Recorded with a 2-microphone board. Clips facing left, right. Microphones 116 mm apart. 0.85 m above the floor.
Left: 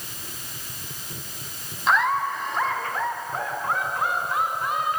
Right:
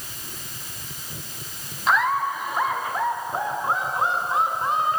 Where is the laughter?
Centre (ahead or behind), 5.5 m; by 5.0 s 30° right (ahead or behind), 8 m.